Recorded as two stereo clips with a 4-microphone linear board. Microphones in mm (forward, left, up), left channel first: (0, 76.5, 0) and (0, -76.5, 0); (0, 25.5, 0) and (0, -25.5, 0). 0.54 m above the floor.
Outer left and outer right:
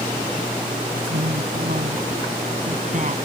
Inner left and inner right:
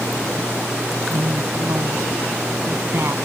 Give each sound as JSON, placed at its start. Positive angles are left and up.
{"t": 0.9, "sound": "a woman speaking", "side_deg": -75}